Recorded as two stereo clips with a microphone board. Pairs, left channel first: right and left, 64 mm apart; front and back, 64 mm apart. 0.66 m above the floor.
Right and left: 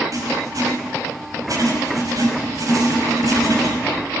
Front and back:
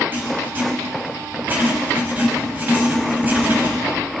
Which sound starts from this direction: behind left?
Writing, at 0.1 s.